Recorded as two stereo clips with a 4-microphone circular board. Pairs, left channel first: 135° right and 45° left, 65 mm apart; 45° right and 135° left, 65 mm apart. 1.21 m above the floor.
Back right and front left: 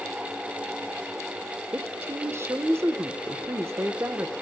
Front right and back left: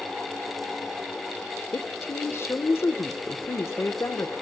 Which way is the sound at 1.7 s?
Straight ahead.